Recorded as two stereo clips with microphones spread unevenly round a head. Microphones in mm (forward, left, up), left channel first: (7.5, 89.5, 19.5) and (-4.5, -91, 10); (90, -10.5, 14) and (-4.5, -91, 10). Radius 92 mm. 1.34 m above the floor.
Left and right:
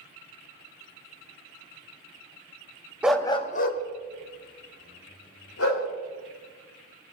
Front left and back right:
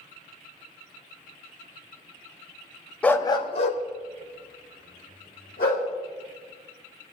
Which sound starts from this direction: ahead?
A dog barking, at 3.0 s.